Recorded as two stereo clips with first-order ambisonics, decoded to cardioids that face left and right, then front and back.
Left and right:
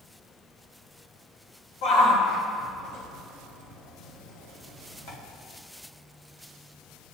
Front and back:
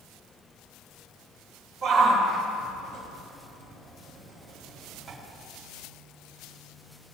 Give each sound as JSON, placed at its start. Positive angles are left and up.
{"t": 1.8, "sound": "a shout", "azimuth_deg": 110, "distance_m": 4.0}